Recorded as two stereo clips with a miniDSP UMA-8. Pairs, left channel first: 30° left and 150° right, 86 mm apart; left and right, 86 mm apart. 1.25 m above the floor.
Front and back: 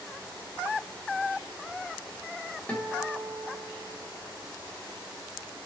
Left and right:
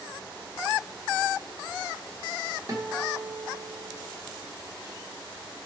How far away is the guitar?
About 0.8 m.